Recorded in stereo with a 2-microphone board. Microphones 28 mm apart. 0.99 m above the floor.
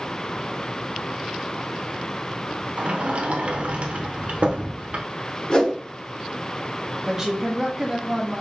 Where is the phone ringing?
I don't hear a phone ringing.